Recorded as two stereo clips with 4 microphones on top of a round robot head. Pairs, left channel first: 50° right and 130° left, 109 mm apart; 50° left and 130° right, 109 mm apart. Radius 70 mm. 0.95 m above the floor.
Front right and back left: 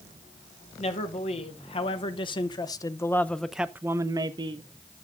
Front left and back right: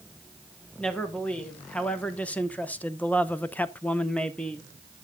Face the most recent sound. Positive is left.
turn(degrees=135)